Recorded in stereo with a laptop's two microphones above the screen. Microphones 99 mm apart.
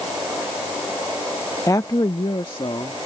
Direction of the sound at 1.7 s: 35° left (ahead or behind).